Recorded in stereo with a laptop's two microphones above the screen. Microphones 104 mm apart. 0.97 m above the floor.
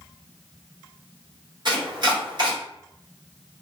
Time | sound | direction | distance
1.6 | chopping | 45° right (ahead or behind) | 1.0 m